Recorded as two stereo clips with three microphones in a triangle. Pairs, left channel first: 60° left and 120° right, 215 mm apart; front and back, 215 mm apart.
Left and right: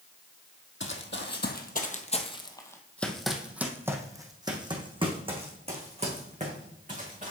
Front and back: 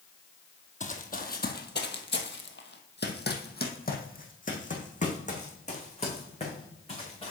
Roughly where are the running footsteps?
Ahead left.